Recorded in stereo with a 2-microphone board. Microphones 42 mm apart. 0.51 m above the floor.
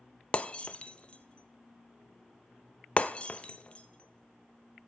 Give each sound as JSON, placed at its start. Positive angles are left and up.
{"t": 0.3, "sound": "breaking glass", "side_deg": 30, "distance_m": 0.5}